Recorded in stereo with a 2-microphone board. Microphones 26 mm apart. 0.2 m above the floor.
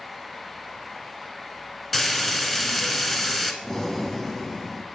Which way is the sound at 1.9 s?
5° left (ahead or behind).